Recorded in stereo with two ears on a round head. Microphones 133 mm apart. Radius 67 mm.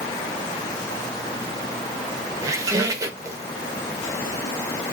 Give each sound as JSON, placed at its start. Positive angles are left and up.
{"t": 2.4, "sound": "a squeak", "side_deg": -20, "distance_m": 0.7}